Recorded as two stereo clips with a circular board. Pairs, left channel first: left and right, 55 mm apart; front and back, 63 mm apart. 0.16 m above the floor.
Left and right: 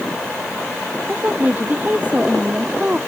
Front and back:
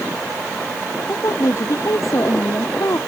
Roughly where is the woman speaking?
Ahead right.